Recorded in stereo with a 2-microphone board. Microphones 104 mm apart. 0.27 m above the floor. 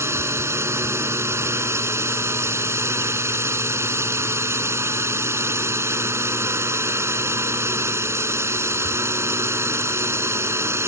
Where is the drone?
25° right (ahead or behind).